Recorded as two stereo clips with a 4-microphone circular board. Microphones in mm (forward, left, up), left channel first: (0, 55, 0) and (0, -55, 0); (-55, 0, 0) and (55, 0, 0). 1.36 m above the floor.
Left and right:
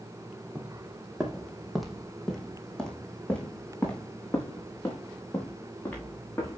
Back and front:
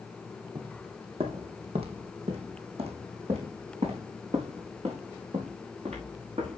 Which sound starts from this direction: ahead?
Footsteps, at 0.6 s.